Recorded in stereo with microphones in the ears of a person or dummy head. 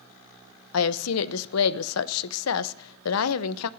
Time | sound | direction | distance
0.7 | a woman speaking | 85° left | 0.9 m